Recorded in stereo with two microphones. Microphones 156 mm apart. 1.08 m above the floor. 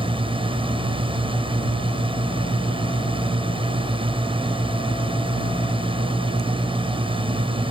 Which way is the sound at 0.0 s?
35° right (ahead or behind).